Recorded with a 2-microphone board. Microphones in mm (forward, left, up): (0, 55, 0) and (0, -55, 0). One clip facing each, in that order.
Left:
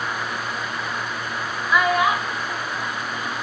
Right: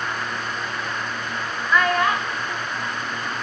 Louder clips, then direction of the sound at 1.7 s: Left 1 dB; 10° left (ahead or behind).